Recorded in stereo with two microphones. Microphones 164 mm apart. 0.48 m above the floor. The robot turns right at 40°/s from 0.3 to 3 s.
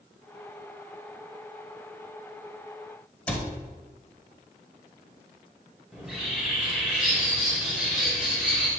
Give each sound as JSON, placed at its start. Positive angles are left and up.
{"t": 3.3, "sound": "a cupboard door", "side_deg": 10, "distance_m": 1.0}
{"t": 5.9, "sound": "a bird", "side_deg": -5, "distance_m": 1.9}